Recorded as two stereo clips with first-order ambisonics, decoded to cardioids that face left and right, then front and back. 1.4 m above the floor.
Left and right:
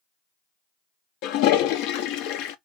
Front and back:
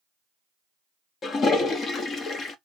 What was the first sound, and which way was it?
A toilet flushing, 65° left.